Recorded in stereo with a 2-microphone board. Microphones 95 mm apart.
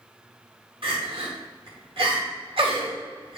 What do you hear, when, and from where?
0.8 s crying: 70° right (ahead or behind), 1.9 m